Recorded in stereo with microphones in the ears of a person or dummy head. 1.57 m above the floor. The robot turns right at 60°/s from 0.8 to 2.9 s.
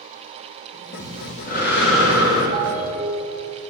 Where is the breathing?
15° left, 3 m; by 2.4 s 100° left, 3 m.